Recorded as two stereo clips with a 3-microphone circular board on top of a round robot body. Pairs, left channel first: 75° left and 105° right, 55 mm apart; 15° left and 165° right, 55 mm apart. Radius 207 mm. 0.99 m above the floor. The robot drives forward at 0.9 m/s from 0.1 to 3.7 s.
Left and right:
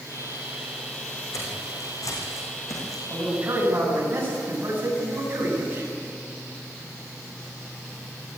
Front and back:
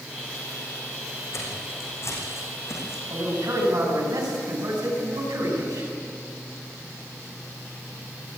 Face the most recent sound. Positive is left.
turn(degrees=-165)